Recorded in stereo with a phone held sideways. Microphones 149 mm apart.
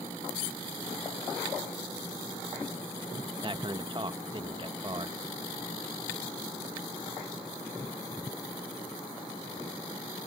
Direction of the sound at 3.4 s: 35° right (ahead or behind).